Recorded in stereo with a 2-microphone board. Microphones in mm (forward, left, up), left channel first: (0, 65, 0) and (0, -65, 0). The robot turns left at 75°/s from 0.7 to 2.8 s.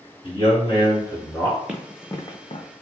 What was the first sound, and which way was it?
A man speaking, 90° left.